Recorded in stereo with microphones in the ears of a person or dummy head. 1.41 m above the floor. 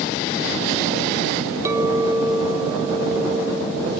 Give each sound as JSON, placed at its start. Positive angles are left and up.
{"t": 1.6, "sound": "a clink", "side_deg": -10, "distance_m": 0.7}